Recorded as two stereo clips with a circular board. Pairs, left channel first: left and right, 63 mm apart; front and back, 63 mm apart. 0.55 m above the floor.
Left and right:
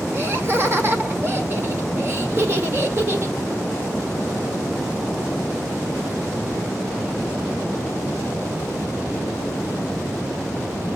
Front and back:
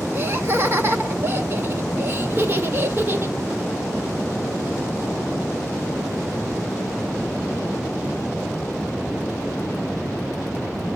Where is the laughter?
135° right, 1.6 m.